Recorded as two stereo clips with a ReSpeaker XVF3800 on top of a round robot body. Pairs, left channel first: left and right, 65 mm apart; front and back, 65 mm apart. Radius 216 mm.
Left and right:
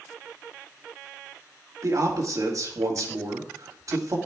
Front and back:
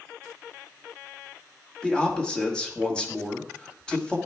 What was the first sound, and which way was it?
A man speaking, 75° right.